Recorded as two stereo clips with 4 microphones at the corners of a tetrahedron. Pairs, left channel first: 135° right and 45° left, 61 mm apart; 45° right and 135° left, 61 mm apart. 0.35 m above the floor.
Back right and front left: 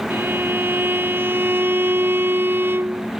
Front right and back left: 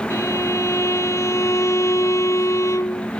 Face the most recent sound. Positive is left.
turn(degrees=-10)